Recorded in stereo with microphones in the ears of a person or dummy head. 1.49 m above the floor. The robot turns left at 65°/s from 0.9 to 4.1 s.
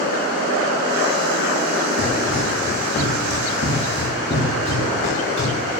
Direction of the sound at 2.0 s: 30° right (ahead or behind).